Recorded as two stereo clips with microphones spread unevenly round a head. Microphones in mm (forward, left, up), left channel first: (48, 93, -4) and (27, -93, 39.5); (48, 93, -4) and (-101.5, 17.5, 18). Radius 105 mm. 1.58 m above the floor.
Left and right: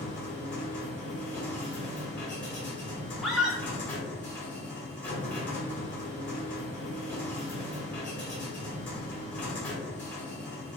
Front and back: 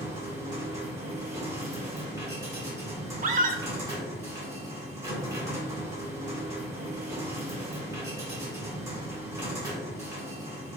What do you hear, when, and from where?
0.0 s a machine running: 175° right, 1.4 m
3.2 s a scream: straight behind, 0.8 m